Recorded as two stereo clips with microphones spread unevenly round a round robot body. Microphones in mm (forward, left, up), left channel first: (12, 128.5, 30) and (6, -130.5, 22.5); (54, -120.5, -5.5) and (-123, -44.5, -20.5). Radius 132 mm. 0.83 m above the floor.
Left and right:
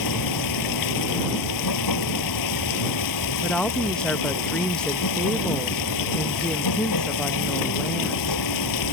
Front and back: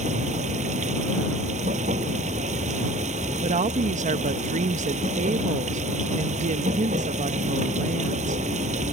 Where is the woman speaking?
175° left.